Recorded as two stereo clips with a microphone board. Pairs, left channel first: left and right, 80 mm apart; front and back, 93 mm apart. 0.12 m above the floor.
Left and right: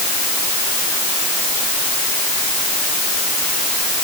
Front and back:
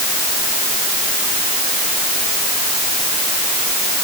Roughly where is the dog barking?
No dog barking in this recording.